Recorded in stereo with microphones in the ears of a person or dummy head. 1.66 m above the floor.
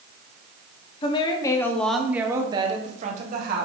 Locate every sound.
1.0 s a woman speaking: 35° left (ahead or behind), 1.4 m; by 3.6 s 60° right (ahead or behind), 1.7 m